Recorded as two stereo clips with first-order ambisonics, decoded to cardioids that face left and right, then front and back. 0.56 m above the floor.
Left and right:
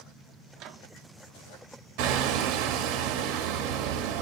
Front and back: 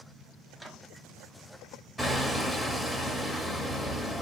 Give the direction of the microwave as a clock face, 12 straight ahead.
3 o'clock.